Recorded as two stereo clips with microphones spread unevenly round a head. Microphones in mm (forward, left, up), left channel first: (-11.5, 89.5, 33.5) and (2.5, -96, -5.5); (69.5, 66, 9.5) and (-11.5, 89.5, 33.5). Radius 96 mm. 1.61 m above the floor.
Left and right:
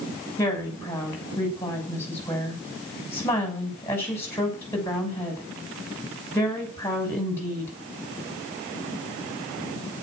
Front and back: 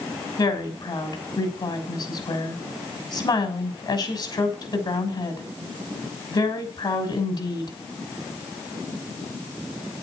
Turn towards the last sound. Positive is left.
turn(degrees=15)